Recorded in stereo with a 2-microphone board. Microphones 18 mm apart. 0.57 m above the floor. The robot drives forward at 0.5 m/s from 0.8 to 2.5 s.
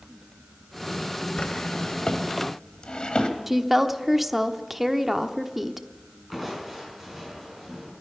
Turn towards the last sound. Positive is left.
turn(degrees=-5)  # may be behind; listen again after turning